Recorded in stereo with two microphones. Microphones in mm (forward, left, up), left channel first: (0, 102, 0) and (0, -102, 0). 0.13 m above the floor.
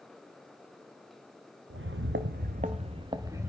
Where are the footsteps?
85° right, 0.7 m; by 3.5 s 10° right (ahead or behind), 1.0 m.